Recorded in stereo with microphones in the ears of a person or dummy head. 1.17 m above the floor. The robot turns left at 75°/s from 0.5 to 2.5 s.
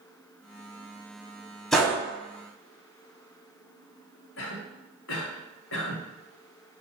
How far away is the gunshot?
About 0.8 m.